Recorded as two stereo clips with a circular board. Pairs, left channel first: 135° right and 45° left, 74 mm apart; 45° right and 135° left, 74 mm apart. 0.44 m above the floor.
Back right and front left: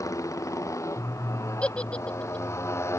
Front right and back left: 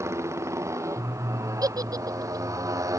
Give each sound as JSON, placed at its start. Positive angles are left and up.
{"t": 0.0, "sound": "a motorcycle", "azimuth_deg": -175}
{"t": 1.6, "sound": "a giggle", "azimuth_deg": 155}